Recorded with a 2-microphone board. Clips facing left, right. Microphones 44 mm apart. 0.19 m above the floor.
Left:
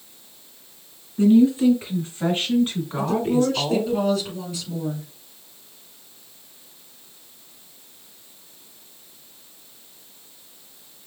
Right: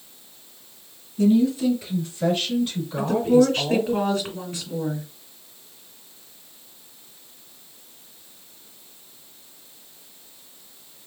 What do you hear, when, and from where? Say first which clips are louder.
1.2 s a woman speaking: left 3 dB; 30° left (ahead or behind), 2.5 m; by 4.0 s 40° left (ahead or behind), 1.9 m
3.0 s a woman speaking: right 4 dB; 50° right (ahead or behind), 2 m